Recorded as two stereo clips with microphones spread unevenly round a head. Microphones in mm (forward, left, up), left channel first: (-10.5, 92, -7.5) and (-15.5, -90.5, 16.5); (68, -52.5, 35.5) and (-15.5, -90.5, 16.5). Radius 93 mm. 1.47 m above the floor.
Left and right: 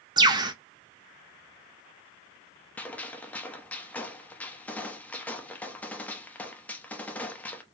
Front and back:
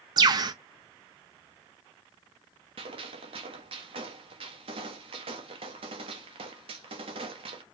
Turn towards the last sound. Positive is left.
turn(degrees=175)